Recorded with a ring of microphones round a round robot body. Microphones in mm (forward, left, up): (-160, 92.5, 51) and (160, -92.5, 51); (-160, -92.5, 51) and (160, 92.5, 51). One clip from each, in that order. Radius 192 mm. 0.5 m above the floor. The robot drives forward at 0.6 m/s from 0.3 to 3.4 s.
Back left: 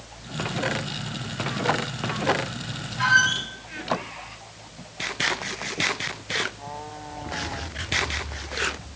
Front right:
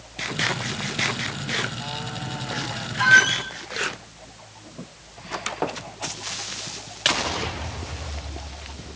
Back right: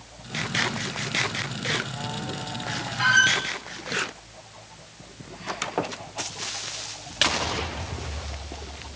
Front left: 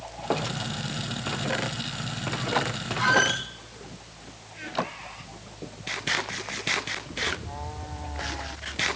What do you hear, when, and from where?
3.0 s a squeak: 120° right, 2.5 m; by 3.4 s 125° right, 2.5 m